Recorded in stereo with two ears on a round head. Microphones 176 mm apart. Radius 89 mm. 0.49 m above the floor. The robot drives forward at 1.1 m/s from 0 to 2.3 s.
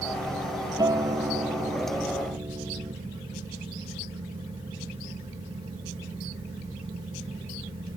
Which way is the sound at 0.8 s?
20° right (ahead or behind).